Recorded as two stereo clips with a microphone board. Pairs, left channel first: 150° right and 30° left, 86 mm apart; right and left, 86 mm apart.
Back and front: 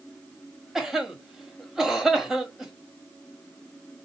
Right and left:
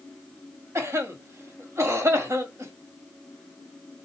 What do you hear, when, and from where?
0.8 s a cough: 110° left, 1.2 m